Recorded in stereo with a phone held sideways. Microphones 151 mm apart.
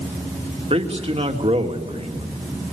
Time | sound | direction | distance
0.7 | a man speaking | 40° right (ahead or behind) | 2.5 m